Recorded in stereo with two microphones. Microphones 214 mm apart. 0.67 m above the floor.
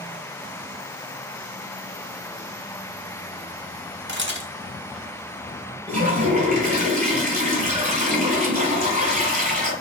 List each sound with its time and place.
4.1 s a camera shutter: 55° right (ahead or behind), 1.1 m
5.9 s a toilet flushing: 35° right (ahead or behind), 3 m